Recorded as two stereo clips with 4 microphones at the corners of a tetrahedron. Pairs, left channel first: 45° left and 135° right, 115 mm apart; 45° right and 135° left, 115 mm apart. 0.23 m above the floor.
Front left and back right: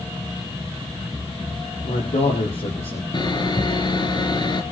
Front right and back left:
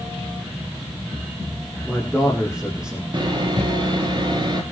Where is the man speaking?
50° left, 8 m.